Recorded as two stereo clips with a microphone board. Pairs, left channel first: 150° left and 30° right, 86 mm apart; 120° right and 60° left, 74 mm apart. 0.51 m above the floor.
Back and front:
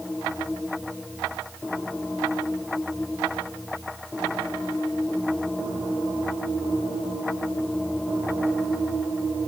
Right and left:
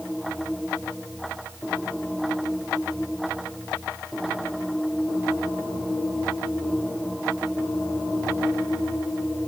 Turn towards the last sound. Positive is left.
No sound to turn to.